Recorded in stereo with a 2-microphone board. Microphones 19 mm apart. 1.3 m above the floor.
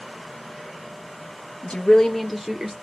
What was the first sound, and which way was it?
A woman speaking, 65° left (ahead or behind).